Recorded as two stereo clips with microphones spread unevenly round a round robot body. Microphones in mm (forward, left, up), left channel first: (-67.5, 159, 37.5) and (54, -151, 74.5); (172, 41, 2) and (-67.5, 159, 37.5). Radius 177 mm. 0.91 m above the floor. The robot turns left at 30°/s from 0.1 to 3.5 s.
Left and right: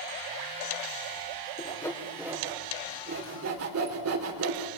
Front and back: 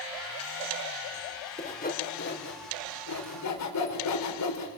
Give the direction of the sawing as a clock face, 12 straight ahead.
11 o'clock.